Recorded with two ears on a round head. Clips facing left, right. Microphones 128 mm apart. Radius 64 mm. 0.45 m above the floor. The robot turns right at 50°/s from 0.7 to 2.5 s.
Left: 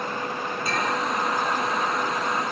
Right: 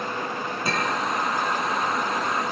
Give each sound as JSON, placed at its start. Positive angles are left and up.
{"t": 0.7, "sound": "a clink", "side_deg": -50, "distance_m": 9.5}